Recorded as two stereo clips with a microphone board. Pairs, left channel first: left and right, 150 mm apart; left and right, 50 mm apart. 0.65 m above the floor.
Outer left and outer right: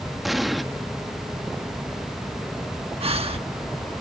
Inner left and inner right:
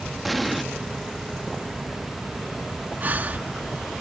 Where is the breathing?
40° right (ahead or behind).